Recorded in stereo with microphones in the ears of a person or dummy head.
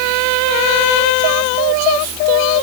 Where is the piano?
No piano in this recording.